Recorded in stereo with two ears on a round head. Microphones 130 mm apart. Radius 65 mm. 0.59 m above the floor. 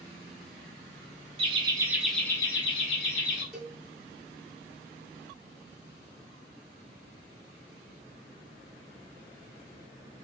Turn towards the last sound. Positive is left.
turn(degrees=0)  # may be behind; listen again after turning